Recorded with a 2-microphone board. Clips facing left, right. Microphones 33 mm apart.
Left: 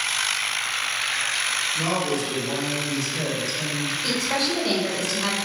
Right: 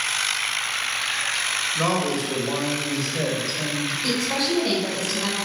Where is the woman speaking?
Centre (ahead or behind), 1.8 m.